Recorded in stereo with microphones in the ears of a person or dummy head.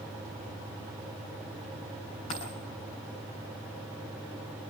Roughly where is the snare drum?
No snare drum in this recording.